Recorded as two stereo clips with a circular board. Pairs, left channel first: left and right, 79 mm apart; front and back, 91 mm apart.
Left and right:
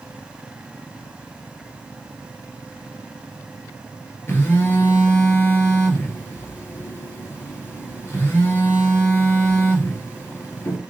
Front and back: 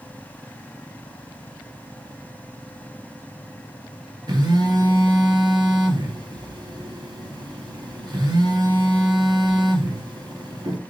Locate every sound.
4.3 s a phone buzzing: 145° left, 3 m